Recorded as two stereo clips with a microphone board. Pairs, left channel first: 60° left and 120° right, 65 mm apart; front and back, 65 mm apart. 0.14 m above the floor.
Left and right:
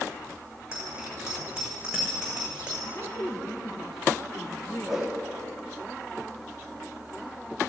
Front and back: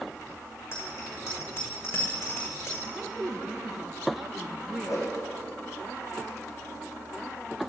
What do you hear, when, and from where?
0.7 s a bicycle bell: 45° right, 6.5 m
2.9 s a woman speaking: 95° left, 2.5 m
4.9 s a whoosh: 35° right, 4 m